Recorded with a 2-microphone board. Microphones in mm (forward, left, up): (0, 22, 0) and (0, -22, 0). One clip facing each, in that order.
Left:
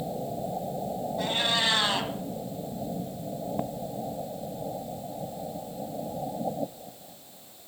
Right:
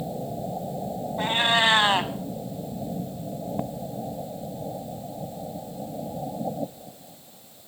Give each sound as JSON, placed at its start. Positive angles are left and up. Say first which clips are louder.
{"t": 1.2, "sound": "a cat meowing", "louder": "right 6 dB", "side_deg": -35, "distance_m": 1.2}